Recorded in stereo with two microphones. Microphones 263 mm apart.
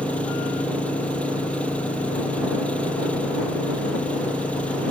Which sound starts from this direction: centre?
An engine running, at 0.0 s.